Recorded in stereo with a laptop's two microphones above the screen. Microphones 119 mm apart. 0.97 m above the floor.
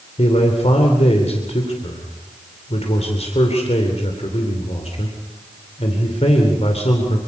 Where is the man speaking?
60° left (ahead or behind), 3 m.